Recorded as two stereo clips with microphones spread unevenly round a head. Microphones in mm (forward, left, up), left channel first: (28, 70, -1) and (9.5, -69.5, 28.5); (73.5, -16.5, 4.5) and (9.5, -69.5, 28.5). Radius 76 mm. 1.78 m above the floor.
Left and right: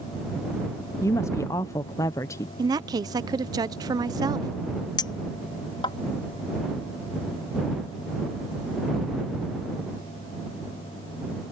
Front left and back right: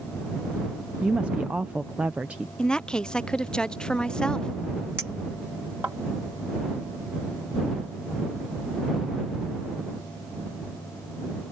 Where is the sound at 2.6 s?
50° right.